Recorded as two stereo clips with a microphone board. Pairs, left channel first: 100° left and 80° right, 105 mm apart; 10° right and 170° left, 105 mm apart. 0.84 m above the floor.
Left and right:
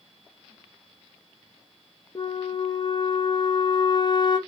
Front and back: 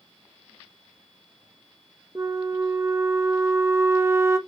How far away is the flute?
About 0.5 m.